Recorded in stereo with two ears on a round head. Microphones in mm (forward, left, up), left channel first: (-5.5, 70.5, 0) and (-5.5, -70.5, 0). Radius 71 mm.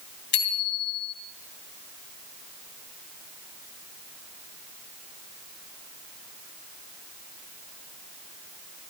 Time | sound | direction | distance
0.3 | a bicycle bell | 70° left (ahead or behind) | 3.5 m